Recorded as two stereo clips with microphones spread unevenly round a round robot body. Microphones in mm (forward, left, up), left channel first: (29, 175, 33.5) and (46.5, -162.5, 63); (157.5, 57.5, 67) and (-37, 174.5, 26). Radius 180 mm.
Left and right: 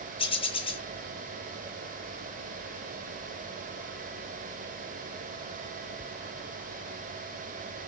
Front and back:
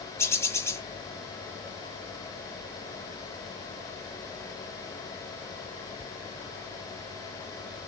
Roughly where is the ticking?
No ticking in this recording.